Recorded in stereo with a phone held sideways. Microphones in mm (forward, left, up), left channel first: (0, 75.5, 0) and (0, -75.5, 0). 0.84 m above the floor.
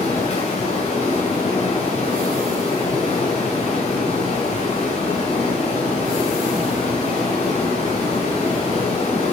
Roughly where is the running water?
Left.